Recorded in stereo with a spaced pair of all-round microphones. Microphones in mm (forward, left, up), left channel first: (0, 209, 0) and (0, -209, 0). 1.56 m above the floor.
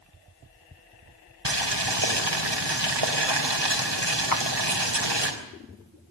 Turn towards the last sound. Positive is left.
turn(degrees=50)  # may be behind; listen again after turning